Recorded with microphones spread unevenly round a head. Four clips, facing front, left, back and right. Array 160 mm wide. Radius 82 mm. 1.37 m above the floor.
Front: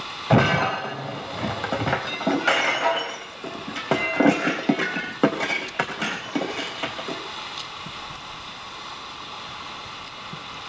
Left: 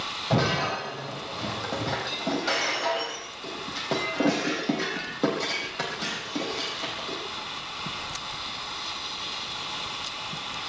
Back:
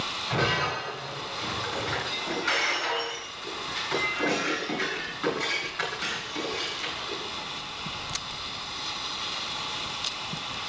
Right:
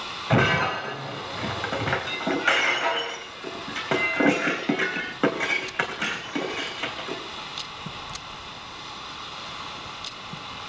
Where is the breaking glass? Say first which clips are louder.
Right 3 dB, front 8 dB; straight ahead, 3.5 m.